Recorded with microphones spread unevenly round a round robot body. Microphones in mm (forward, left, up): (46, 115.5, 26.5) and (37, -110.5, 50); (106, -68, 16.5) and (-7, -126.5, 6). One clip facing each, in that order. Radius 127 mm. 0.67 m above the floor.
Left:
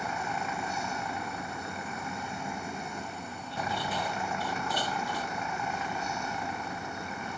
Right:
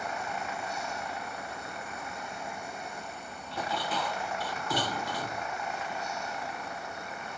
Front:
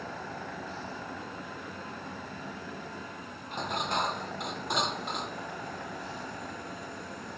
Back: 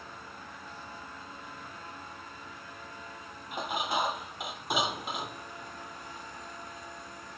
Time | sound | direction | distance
0.0 | a vehicle | 90° left | ?
3.5 | dishes clattering | 70° right | ?